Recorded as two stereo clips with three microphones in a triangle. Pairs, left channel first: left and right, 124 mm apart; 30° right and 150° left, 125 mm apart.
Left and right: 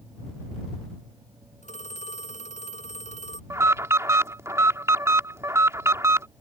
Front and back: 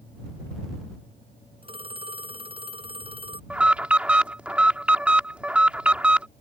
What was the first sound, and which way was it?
A phone ringing, 110° left.